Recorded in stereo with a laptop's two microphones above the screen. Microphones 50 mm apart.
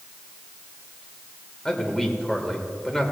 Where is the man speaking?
10° left (ahead or behind), 2.5 m.